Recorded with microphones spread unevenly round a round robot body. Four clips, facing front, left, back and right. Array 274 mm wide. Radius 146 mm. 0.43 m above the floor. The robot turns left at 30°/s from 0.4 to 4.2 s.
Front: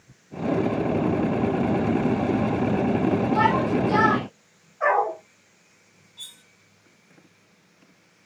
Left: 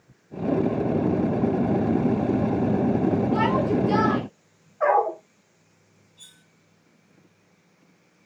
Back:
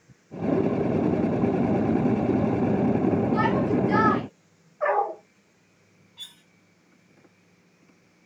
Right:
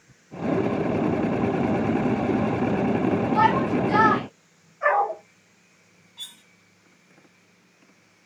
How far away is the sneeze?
I don't hear a sneeze.